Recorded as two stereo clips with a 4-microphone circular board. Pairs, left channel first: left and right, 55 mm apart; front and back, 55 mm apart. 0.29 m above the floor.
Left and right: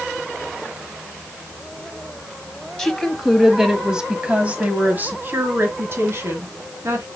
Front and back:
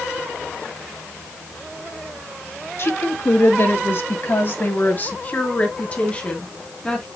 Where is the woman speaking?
15° left, 1.8 m; by 7.1 s 70° right, 2.5 m.